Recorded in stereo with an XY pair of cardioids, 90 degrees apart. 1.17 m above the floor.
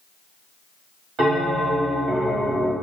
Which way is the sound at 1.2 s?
65° right.